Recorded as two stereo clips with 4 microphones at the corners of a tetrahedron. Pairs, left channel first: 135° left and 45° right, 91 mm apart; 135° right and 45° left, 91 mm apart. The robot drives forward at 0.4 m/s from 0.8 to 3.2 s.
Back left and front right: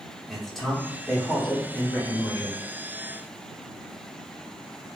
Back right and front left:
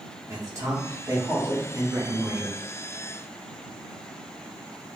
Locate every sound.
0.3 s a man speaking: 50° left, 1.1 m; by 2.6 s 125° left, 1.0 m